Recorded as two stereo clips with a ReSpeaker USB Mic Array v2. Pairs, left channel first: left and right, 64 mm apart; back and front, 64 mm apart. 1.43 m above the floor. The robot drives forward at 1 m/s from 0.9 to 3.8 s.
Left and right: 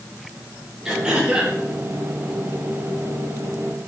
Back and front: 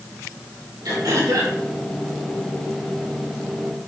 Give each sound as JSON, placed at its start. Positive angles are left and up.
{"t": 0.8, "sound": "throat clearing", "azimuth_deg": -10, "distance_m": 3.5}